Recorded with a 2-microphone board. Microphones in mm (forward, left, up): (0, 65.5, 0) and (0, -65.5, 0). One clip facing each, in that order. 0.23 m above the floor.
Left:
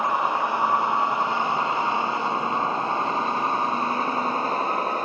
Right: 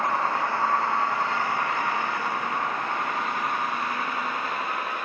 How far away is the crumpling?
No crumpling in this recording.